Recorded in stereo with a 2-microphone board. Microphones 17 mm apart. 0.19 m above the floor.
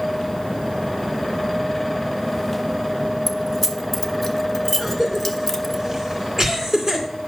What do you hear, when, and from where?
3.3 s keys jangling: 15° left (ahead or behind), 0.9 m
4.8 s a cough: 25° right (ahead or behind), 2.5 m